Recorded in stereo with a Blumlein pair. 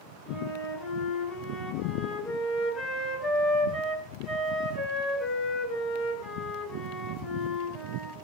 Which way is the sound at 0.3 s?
30° left.